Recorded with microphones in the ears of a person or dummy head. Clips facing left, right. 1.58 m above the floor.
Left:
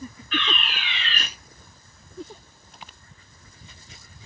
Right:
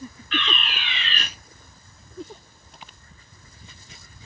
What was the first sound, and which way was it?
A fire alarm, 50° right (ahead or behind).